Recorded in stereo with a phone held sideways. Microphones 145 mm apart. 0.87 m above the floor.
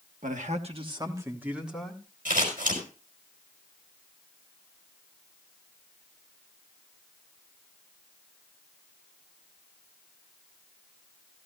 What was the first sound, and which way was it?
A man speaking, 65° right (ahead or behind).